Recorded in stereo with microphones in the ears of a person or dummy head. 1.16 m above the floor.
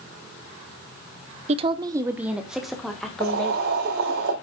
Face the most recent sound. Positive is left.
turn(degrees=-60)  # may be behind; listen again after turning